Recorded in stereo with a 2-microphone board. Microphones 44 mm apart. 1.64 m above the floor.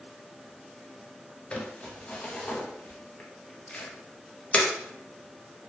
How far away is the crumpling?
About 0.7 m.